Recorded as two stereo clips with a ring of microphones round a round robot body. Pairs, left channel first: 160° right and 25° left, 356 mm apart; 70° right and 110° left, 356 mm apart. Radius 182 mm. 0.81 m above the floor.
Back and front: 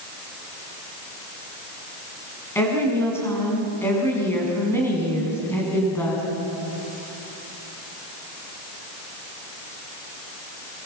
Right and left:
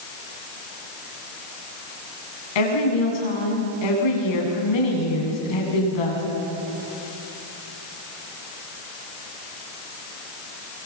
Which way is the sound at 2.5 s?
75° right.